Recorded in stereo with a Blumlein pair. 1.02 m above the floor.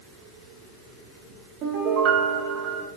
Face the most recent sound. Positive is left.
turn(degrees=-35)